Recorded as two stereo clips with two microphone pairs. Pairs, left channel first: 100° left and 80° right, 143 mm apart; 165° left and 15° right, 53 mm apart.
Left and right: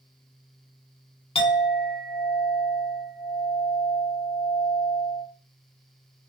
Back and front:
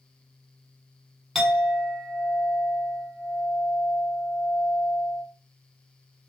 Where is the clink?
75° left, 1.2 m.